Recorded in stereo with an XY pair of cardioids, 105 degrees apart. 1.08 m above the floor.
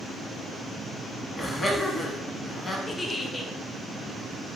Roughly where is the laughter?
Ahead.